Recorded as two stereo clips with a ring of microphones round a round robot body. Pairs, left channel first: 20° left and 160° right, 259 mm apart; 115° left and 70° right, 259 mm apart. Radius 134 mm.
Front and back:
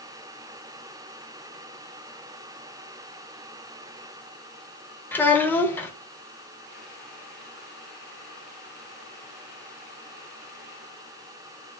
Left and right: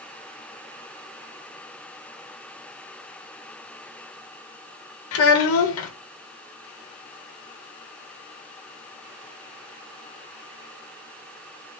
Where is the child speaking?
105° left, 0.6 m.